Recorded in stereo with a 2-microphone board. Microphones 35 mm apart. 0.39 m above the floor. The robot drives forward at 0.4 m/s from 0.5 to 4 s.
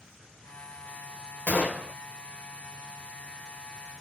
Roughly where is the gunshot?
Left.